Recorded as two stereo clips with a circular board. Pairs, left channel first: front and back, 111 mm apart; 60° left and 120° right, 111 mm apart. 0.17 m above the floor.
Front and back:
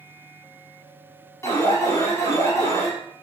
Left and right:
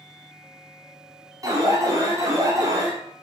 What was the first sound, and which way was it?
An alarm, 60° right.